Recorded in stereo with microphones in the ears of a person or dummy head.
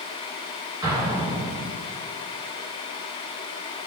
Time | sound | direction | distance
0.8 | an explosion | 25° right (ahead or behind) | 4 m